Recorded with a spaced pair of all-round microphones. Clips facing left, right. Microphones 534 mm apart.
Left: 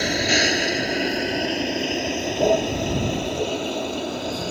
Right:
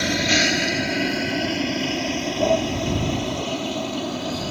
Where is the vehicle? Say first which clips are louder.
Even; 30° right (ahead or behind); by 4.5 s 25° right (ahead or behind).